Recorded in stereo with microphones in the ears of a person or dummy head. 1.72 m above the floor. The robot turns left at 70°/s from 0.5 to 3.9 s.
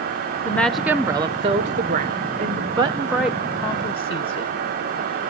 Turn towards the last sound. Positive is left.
turn(degrees=140)